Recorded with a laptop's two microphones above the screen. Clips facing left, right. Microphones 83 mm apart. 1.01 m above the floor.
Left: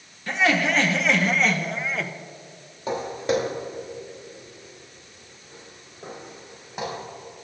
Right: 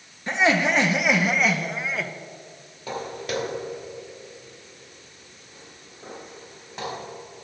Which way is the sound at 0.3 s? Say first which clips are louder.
Right 1 dB; 20° right (ahead or behind).